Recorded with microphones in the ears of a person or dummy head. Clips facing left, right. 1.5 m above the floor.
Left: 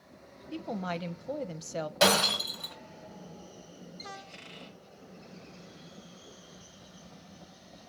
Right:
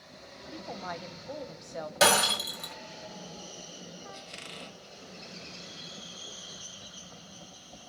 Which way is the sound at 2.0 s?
30° right (ahead or behind).